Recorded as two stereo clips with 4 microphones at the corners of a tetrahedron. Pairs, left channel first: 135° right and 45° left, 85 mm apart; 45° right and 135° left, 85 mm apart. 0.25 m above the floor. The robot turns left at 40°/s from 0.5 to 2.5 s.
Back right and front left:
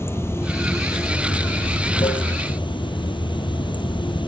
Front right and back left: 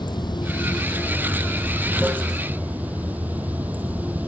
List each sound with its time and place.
0.0 s running water: 75° right, 3 m; by 4.3 s 155° right, 3 m